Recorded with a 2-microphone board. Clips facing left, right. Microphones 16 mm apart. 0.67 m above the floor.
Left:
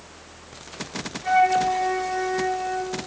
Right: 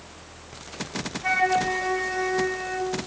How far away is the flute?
About 4.5 m.